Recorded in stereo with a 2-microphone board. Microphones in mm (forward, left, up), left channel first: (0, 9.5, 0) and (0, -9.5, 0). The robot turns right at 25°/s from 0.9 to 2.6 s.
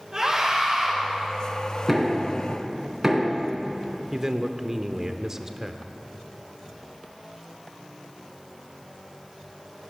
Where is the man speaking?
25° right (ahead or behind), 0.8 m.